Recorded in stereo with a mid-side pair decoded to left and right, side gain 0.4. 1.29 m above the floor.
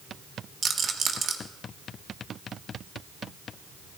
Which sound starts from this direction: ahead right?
A rattle, at 0.6 s.